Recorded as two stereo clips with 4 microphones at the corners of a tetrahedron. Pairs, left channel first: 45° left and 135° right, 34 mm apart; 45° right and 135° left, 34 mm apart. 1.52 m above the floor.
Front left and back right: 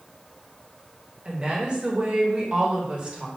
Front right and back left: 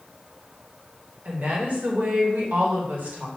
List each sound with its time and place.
1.2 s a woman speaking: 165° left, 1.1 m